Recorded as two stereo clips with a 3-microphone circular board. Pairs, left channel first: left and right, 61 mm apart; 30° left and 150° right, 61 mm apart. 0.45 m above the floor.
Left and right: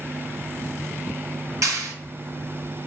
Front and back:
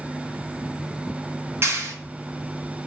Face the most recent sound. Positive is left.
turn(degrees=-110)